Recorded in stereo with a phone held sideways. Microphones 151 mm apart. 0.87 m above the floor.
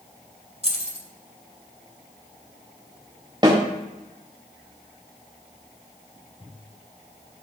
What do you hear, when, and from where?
0.6 s keys jangling: 45° right (ahead or behind), 2 m
3.4 s a snare drum: 30° right (ahead or behind), 5 m